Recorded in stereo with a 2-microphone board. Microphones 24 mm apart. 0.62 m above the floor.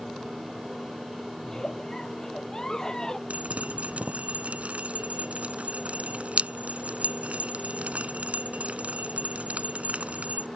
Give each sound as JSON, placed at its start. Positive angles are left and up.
{"t": 1.4, "sound": "a giggle", "side_deg": 25}
{"t": 3.3, "sound": "dripping", "side_deg": -65}